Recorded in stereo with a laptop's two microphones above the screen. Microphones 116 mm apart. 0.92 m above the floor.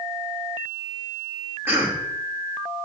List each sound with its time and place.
1.7 s a cough: 20° right (ahead or behind), 2.0 m